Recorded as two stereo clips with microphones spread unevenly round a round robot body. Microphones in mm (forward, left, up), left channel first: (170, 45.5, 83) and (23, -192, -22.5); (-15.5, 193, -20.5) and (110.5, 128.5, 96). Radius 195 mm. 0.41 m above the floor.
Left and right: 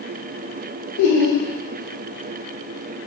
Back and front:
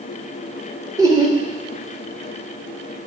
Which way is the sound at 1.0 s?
80° left.